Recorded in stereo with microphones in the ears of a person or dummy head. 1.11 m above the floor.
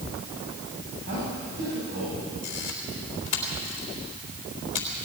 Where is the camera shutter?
40° left (ahead or behind), 3.5 m.